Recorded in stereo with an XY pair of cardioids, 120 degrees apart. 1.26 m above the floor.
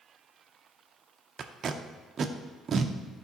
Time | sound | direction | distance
1.4 | tape being pulled | 45° right | 0.5 m